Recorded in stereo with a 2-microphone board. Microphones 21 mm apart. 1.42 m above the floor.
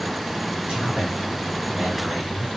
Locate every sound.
0.7 s a man speaking: 85° right, 1.6 m